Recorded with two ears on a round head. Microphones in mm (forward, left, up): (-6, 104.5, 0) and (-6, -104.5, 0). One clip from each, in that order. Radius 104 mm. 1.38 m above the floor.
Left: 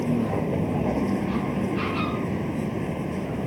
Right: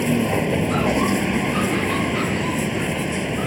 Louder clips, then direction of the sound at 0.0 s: Right 5 dB; 85° right.